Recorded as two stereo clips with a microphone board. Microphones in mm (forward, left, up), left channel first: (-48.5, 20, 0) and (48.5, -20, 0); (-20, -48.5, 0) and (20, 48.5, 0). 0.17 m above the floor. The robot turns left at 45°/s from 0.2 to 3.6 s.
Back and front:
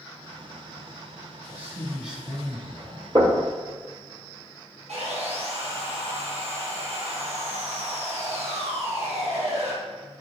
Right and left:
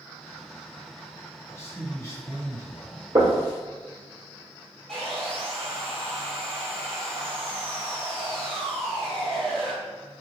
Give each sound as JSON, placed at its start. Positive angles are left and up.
{"t": 1.5, "sound": "a man speaking", "azimuth_deg": -75, "distance_m": 1.5}
{"t": 3.1, "sound": "knocking", "azimuth_deg": 15, "distance_m": 1.8}
{"t": 4.9, "sound": "sawing", "azimuth_deg": -30, "distance_m": 2.0}